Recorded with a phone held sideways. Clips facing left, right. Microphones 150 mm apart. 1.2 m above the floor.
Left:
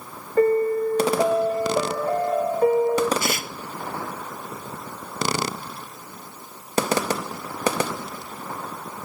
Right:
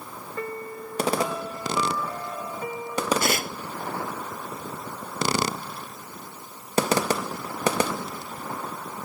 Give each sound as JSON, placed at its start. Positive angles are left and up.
{"t": 0.4, "sound": "a piano", "side_deg": 55}
{"t": 3.2, "sound": "tearing paper", "side_deg": -55}